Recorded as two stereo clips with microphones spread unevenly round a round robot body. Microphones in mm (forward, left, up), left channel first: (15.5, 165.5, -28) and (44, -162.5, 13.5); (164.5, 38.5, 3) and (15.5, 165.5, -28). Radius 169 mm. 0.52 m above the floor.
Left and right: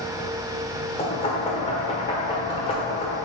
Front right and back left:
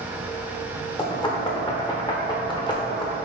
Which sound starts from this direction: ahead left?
Knocking, at 1.0 s.